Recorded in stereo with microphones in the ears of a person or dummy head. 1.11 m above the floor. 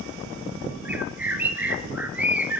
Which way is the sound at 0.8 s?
Centre (ahead or behind).